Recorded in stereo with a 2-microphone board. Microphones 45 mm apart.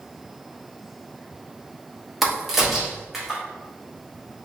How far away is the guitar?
No guitar in this recording.